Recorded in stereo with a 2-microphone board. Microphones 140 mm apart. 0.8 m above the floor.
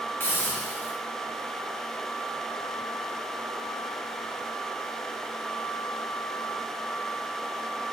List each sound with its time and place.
0.2 s a hiss: 15° left (ahead or behind), 0.8 m